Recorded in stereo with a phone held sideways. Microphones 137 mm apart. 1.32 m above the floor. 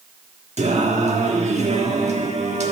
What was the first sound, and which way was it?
Singing, 50° right (ahead or behind).